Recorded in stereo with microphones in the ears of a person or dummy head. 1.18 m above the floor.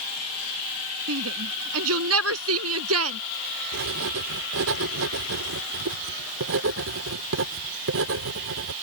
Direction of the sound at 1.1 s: 85° right.